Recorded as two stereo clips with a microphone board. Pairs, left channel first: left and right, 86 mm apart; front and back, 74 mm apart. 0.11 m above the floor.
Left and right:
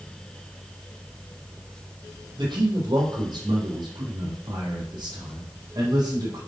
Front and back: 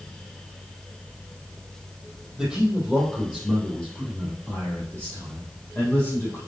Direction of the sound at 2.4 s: 95° right.